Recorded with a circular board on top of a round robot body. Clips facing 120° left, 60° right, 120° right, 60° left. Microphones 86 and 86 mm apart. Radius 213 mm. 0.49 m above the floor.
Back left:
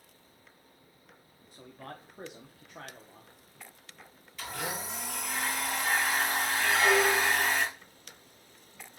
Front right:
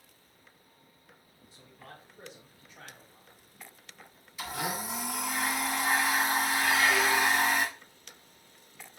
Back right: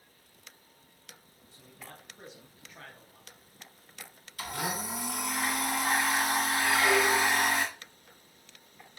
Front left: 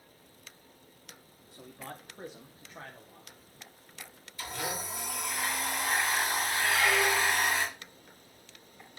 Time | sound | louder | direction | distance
1.5 | a man speaking | back left 6 dB, front left 6 dB | 80° left | 1.4 m
4.4 | a blender | front right 2 dB, back right 2 dB | 140° right | 6 m
6.7 | a squeak | back left 3 dB, back right 2 dB | 170° left | 1.1 m